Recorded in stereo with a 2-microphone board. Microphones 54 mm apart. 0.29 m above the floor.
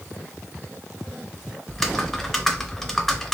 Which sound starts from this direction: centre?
Typing on a keyboard, at 1.7 s.